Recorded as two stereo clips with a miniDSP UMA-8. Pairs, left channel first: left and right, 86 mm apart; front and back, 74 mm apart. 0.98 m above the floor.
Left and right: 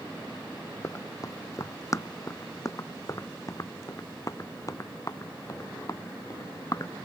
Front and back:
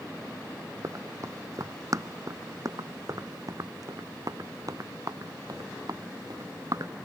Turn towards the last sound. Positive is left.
turn(degrees=140)